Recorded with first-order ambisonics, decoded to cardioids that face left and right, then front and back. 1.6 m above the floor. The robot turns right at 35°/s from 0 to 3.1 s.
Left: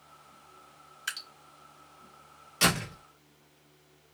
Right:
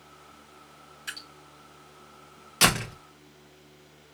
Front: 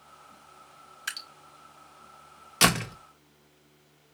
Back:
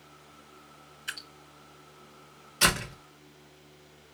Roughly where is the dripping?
Ahead.